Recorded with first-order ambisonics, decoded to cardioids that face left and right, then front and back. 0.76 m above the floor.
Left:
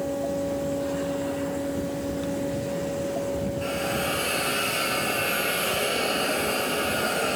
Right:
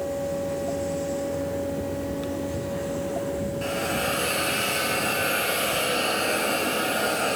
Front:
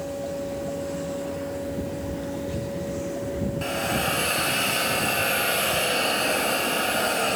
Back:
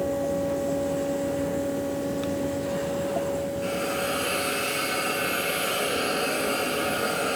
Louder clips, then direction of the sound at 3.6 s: Right 2 dB, front 5 dB; 10° right.